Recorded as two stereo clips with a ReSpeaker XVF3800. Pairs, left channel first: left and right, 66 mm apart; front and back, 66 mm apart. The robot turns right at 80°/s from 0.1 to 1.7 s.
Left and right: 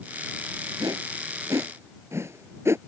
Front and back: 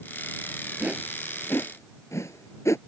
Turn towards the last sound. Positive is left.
turn(degrees=-45)